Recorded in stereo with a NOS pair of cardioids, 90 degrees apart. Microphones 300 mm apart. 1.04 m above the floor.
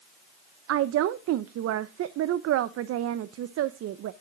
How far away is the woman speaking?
About 0.5 m.